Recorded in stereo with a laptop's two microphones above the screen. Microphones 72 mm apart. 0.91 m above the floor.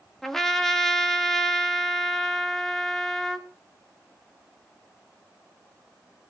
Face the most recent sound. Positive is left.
turn(degrees=5)  # may be behind; listen again after turning